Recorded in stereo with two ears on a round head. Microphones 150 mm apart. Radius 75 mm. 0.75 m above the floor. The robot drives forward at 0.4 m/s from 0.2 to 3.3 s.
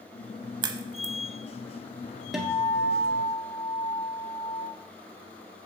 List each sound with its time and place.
0.6 s a crack: 30° right (ahead or behind), 0.7 m; by 1.1 s 25° right (ahead or behind), 0.8 m
2.3 s a guitar: centre (ahead or behind), 1.5 m